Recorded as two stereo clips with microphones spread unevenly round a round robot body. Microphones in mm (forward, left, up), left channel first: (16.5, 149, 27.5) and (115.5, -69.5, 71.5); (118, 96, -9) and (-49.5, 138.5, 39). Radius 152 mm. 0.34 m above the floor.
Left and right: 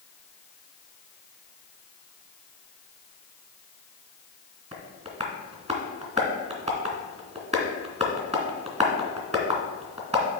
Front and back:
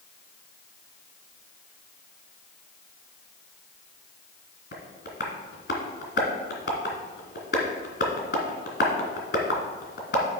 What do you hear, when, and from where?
4.7 s tapping: straight ahead, 2 m